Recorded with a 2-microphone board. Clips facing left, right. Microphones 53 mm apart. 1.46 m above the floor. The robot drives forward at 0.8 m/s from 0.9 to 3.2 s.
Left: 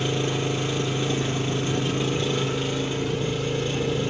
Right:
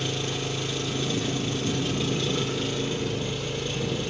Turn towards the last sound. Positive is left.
turn(degrees=10)  # may be behind; listen again after turning